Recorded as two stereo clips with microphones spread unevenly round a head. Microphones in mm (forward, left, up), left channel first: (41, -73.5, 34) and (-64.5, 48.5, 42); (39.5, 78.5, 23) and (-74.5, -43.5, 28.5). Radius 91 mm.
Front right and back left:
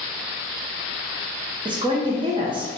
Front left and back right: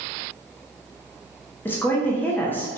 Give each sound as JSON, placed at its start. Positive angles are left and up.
{"t": 1.6, "sound": "a woman speaking", "azimuth_deg": 110, "distance_m": 0.6}